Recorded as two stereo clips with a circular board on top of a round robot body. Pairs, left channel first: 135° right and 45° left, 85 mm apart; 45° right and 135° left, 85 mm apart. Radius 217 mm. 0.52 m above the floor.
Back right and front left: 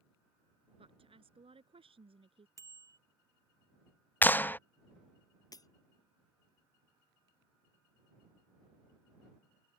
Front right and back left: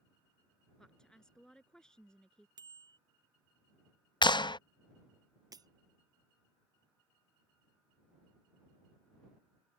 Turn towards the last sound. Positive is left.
turn(degrees=180)